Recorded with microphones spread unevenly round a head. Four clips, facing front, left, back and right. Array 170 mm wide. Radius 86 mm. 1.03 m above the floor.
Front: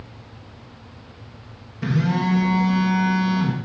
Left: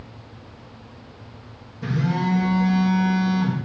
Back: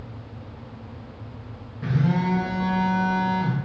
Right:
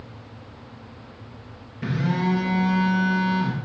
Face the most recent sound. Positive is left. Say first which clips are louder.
# left 1 dB, front 2 dB
turn(degrees=-25)